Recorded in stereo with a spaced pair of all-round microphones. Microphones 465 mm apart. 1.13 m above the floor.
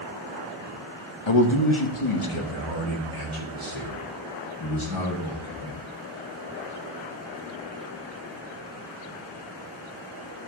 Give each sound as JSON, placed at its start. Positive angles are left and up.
{"t": 1.3, "sound": "a man speaking", "side_deg": 60, "distance_m": 1.3}